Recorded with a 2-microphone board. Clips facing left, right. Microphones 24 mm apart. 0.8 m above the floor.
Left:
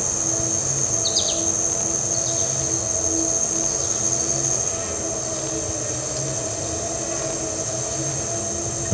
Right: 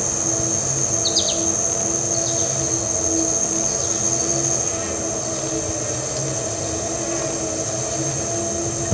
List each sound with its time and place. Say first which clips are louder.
0.0 s an insect: right 2 dB; 10° right (ahead or behind), 0.8 m